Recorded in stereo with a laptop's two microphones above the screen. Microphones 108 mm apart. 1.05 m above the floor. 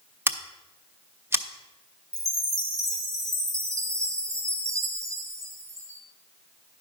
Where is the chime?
30° right (ahead or behind), 1.0 m.